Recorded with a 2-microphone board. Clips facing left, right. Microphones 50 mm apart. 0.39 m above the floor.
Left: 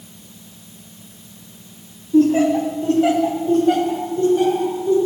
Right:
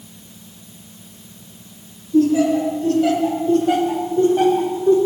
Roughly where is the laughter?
Left.